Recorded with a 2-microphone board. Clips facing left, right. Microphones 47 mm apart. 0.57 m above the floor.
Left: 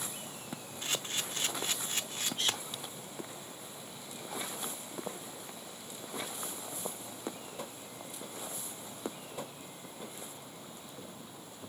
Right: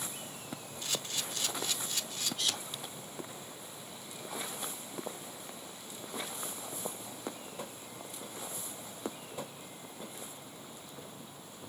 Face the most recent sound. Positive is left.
turn(degrees=30)  # may be behind; listen again after turning